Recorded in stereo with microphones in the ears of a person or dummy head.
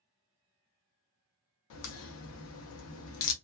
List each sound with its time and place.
1.7 s a crack: 60° left (ahead or behind), 0.6 m